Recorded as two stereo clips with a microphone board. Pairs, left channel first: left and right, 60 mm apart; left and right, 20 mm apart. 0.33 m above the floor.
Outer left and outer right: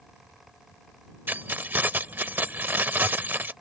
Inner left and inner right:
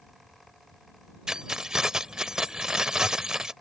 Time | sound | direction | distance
1.3 | keys jangling | 30° right (ahead or behind) | ?